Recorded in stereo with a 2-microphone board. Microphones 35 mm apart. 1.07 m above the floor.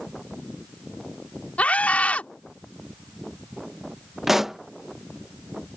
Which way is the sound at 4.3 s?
5° right (ahead or behind).